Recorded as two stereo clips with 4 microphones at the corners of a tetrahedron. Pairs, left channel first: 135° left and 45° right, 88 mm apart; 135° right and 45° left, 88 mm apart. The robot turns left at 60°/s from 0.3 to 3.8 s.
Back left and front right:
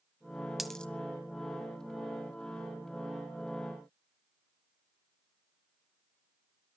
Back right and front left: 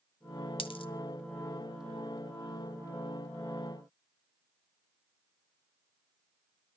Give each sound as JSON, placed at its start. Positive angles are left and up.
{"t": 0.6, "sound": "a dropped coin", "azimuth_deg": -130, "distance_m": 1.1}